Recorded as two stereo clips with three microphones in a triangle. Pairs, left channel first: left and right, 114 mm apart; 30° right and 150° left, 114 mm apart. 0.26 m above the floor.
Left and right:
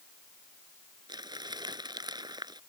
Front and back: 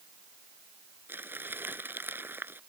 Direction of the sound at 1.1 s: 140° right.